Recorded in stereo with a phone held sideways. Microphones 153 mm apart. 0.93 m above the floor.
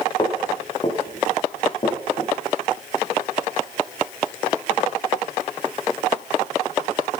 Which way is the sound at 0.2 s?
30° left (ahead or behind).